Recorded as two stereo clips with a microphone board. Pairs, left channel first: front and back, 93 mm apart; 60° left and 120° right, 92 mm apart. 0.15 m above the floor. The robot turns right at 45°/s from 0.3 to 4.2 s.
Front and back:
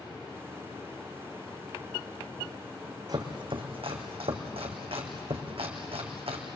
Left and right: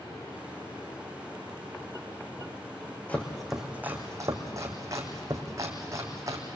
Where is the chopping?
135° left, 3 m; by 6.5 s 175° right, 3 m.